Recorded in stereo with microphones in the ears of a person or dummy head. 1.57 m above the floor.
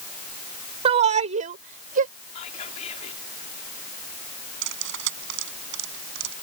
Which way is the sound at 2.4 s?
50° left (ahead or behind).